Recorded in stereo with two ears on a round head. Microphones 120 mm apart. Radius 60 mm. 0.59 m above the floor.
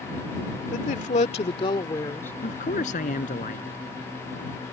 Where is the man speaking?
60° left (ahead or behind).